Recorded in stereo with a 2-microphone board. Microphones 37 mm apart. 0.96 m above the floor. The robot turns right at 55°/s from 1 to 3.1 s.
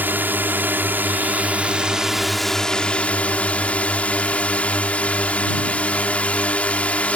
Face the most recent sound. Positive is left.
turn(degrees=45)